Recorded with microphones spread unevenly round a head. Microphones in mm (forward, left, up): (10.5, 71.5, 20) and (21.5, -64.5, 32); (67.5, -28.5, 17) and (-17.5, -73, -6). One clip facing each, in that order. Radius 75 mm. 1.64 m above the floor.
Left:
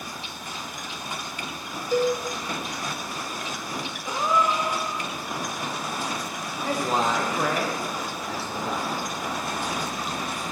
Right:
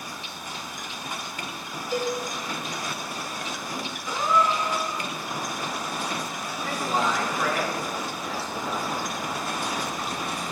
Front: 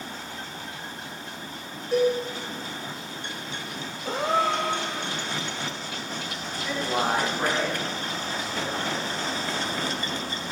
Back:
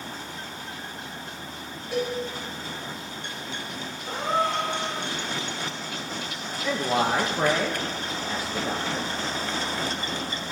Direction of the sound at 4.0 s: 20° left.